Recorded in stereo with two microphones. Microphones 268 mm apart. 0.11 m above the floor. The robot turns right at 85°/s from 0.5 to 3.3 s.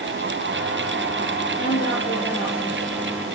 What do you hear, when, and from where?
1.6 s a woman speaking: 105° left, 2.5 m; by 3.2 s 115° right, 2.5 m